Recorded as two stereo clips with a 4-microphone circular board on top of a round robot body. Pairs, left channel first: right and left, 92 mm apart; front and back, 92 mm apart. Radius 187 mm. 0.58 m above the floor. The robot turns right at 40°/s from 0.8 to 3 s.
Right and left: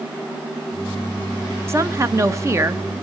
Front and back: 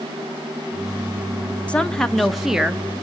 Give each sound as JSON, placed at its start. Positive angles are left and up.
{"t": 1.7, "sound": "a woman speaking", "azimuth_deg": 65, "distance_m": 1.3}